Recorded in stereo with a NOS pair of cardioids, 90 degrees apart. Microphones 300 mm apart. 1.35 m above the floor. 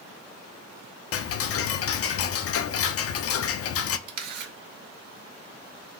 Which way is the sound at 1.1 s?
50° left.